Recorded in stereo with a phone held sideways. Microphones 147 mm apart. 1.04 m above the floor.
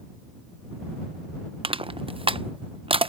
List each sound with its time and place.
1.6 s crushing: 40° right (ahead or behind)